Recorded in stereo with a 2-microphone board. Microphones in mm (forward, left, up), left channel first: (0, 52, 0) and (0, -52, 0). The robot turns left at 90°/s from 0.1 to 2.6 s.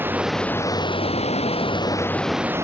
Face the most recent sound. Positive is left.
turn(degrees=-25)